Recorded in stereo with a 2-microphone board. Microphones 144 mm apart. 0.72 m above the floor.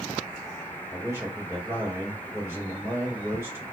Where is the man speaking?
15° right (ahead or behind), 3.5 m.